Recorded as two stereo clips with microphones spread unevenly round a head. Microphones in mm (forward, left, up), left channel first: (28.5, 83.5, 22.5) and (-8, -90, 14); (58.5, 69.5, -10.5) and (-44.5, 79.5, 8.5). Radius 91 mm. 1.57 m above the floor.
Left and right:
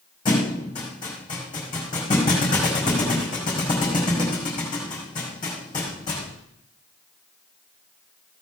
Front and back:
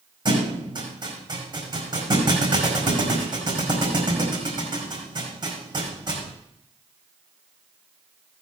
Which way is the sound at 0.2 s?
140° left.